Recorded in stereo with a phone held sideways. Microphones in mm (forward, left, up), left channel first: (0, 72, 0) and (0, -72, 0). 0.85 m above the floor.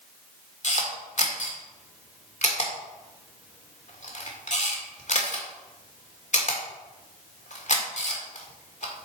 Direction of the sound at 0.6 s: 55° left (ahead or behind).